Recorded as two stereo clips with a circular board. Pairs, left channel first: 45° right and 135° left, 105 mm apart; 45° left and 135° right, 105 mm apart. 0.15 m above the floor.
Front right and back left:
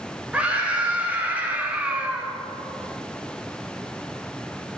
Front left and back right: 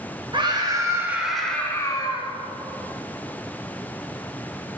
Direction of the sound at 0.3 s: 150° right.